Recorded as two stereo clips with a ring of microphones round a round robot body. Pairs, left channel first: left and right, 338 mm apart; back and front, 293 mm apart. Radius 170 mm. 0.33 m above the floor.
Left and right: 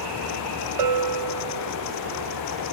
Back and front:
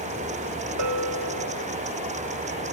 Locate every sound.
0.8 s a bell: 50° right, 0.5 m